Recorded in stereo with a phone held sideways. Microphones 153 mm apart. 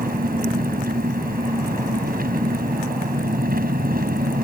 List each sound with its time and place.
0.0 s an engine running: 80° right